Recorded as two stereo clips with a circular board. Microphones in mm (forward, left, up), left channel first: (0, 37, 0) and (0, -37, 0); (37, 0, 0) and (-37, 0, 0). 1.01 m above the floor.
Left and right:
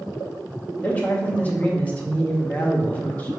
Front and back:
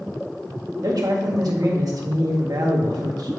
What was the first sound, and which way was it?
A man speaking, 160° left.